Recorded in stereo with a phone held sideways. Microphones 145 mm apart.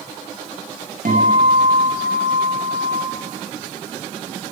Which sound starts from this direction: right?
A guitar, at 1.1 s.